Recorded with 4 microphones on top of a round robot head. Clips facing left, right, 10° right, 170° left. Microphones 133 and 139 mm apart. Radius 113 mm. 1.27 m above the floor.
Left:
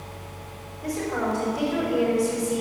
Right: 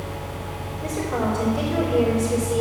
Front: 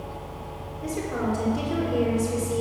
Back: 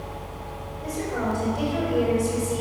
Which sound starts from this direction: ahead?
A woman speaking, at 0.8 s.